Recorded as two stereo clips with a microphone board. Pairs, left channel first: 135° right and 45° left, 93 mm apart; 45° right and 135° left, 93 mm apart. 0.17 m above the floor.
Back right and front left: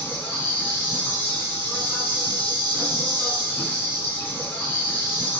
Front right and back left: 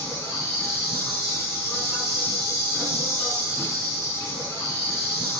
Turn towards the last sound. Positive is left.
turn(degrees=-75)